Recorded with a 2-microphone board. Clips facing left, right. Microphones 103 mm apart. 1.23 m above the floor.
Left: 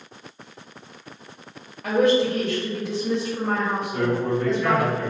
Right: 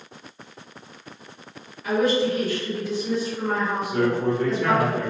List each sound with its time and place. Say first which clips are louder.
1.8 s a woman speaking: left 2 dB; 65° left (ahead or behind), 1.0 m
3.9 s a man speaking: right 2 dB; 70° right (ahead or behind), 1.3 m